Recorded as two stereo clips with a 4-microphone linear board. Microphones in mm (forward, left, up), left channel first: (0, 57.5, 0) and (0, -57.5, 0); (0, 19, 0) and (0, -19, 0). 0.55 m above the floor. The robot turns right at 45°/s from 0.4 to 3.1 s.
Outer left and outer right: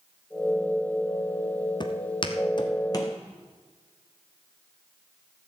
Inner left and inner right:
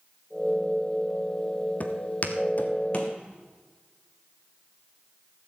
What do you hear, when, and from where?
1.8 s footsteps: 40° left (ahead or behind), 1.0 m; by 3.1 s 30° left (ahead or behind), 2.0 m